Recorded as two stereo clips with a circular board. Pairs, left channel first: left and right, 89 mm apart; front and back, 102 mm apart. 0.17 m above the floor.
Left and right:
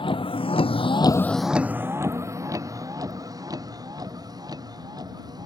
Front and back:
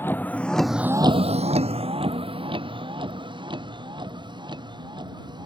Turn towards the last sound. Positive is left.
turn(degrees=-135)